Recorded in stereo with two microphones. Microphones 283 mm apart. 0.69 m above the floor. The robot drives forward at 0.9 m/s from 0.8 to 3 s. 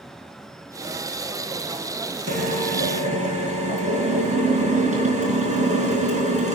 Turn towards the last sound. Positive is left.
turn(degrees=-25)  # may be behind; listen again after turning